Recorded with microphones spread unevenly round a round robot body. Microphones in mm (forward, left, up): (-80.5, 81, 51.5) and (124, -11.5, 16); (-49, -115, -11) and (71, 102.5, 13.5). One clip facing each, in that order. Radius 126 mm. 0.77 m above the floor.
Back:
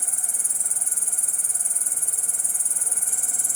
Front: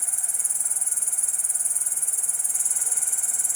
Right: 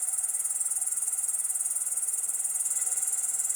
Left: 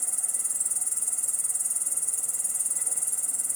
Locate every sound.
0.0 s an insect: 105° left